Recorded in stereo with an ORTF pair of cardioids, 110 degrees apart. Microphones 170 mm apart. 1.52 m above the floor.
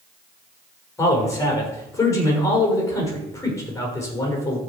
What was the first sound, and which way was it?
A man speaking, 20° left.